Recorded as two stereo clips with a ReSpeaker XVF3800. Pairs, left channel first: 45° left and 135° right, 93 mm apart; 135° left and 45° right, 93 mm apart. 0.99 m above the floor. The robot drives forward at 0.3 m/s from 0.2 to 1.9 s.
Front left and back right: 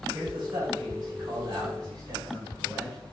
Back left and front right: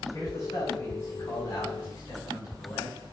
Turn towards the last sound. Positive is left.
turn(degrees=180)